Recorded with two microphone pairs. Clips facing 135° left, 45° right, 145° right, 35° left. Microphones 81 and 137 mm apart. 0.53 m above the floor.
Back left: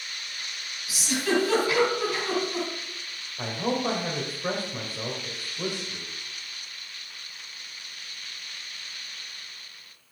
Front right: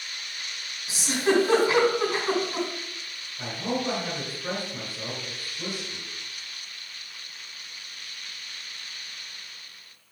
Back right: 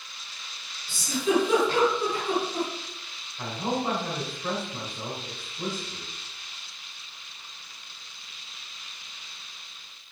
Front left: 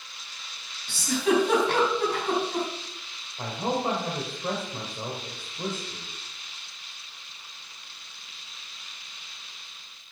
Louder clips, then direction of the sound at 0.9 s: Front right 2 dB, front left 1 dB; 20° left.